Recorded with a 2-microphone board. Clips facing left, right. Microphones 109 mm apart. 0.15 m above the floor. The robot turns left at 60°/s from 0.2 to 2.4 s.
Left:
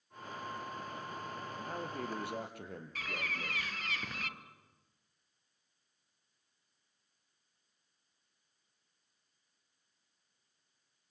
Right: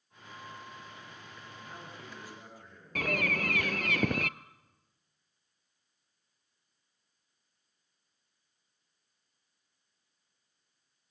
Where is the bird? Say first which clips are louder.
Right 11 dB; 65° right (ahead or behind), 0.6 m.